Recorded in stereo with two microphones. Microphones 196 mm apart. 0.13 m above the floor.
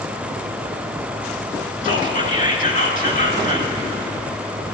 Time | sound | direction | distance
1.8 | whispering | 40° left (ahead or behind) | 1.5 m